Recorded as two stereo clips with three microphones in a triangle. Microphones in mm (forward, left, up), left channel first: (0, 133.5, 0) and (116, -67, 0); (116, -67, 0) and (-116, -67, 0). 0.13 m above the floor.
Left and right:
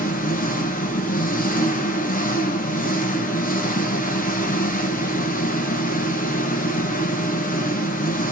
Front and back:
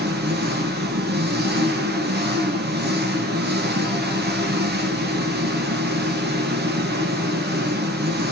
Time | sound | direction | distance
0.0 | an engine running | 160° left | 1.2 m